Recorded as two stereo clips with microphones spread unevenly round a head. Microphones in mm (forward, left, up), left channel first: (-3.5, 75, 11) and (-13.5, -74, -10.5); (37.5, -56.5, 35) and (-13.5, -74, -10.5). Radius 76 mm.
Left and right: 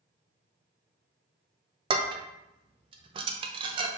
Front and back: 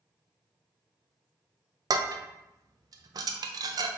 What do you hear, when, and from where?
1.9 s dishes clattering: 120° right, 0.5 m